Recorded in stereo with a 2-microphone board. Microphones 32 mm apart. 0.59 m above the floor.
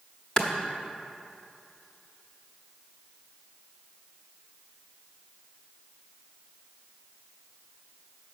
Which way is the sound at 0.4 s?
20° left (ahead or behind).